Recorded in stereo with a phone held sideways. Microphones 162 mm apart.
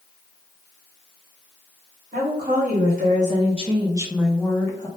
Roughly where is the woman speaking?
Right.